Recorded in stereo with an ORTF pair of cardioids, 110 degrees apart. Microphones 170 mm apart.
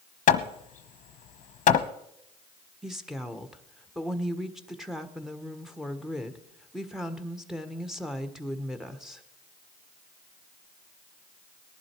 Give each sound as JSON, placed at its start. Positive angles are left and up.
{"t": 0.3, "sound": "hammering", "azimuth_deg": 50, "distance_m": 1.1}
{"t": 2.8, "sound": "a woman speaking", "azimuth_deg": 0, "distance_m": 1.4}